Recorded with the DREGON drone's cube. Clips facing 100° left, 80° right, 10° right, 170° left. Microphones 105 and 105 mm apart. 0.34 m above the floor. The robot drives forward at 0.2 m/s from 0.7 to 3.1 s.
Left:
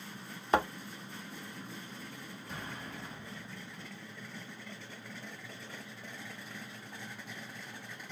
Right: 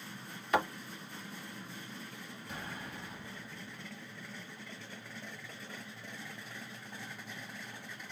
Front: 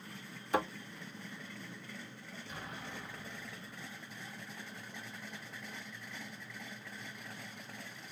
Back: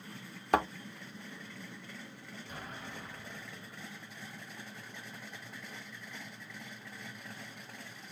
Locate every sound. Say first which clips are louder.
0.5 s a thud: left 2 dB, back 4 dB; 155° left, 0.9 m
2.5 s an explosion: even, even; 155° right, 1.5 m; by 3.9 s 160° right, 1.6 m